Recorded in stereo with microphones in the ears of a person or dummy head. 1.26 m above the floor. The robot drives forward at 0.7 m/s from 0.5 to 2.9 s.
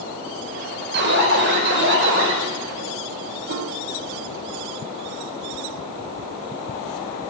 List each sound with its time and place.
0.9 s an alarm: 60° right (ahead or behind), 6 m; by 2.4 s 70° right (ahead or behind), 6 m
3.5 s a piano: 50° right (ahead or behind), 1.0 m